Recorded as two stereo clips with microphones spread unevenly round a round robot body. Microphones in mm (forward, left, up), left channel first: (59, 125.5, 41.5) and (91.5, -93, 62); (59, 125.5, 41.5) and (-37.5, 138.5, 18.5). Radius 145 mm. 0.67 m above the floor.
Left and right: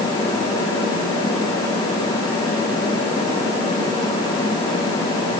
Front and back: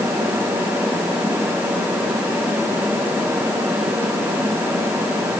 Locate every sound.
Only background noise.